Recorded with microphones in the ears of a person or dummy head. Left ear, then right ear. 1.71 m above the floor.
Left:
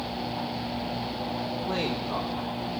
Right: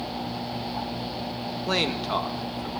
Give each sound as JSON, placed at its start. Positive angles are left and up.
{"t": 1.7, "sound": "a man speaking", "side_deg": -70, "distance_m": 1.8}